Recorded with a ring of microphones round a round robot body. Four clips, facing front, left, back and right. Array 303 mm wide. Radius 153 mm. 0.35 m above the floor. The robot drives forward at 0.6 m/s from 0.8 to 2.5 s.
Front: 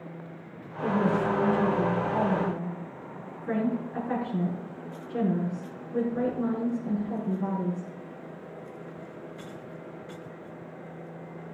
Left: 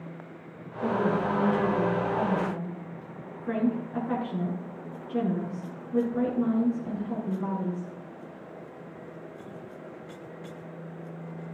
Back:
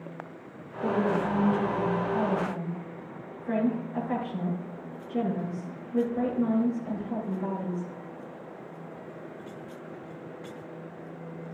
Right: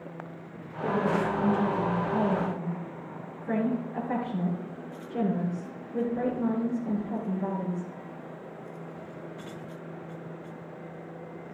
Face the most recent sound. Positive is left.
turn(degrees=70)